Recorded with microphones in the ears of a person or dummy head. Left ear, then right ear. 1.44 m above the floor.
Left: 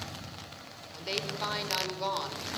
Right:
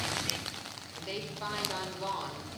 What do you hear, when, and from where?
0.9 s a woman speaking: 25° left (ahead or behind), 6 m